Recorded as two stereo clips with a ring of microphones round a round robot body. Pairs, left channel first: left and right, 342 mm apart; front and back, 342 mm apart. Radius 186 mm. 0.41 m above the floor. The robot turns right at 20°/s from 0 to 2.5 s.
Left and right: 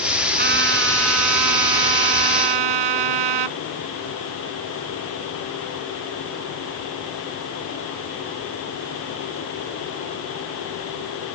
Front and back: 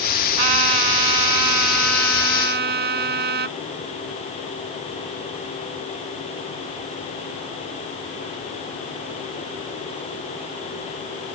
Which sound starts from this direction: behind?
A trumpet, at 0.4 s.